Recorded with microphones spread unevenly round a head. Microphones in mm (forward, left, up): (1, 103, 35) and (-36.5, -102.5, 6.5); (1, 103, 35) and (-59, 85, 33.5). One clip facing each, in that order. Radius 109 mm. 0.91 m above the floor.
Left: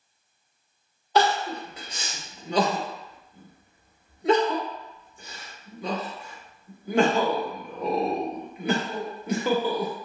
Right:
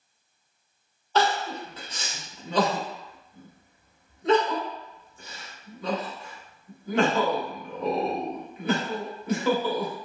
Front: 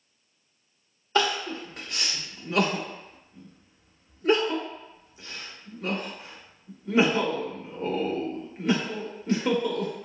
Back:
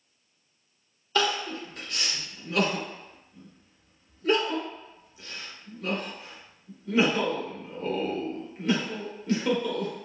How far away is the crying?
About 0.6 m.